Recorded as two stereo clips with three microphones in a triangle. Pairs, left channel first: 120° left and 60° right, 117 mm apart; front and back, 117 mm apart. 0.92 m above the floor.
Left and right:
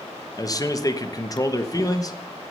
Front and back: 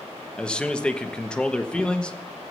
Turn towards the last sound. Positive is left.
turn(degrees=80)